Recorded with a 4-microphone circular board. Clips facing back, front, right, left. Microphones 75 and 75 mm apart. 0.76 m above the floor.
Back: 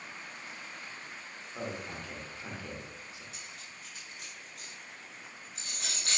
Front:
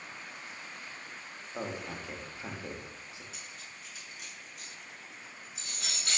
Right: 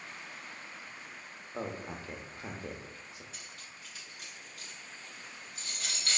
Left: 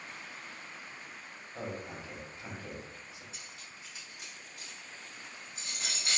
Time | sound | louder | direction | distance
1.5 | a man speaking | front 1 dB, right 2 dB | 60° right | 0.7 m
3.3 | cutlery clinking | even, even | 155° left | 1.5 m